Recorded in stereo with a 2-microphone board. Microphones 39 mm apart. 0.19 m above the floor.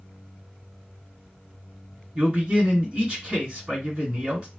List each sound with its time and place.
2.1 s a man speaking: 30° right (ahead or behind), 2 m